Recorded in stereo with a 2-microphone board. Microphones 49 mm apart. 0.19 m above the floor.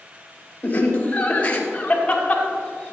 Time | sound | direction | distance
0.6 | laughter | 30° left (ahead or behind) | 3.5 m